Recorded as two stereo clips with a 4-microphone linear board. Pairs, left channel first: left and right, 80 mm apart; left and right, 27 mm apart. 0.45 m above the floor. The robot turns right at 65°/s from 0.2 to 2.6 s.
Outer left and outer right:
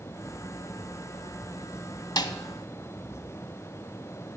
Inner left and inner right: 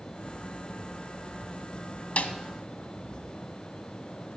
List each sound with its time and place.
2.2 s a snare drum: 60° left (ahead or behind), 0.6 m; by 2.4 s 70° left (ahead or behind), 0.6 m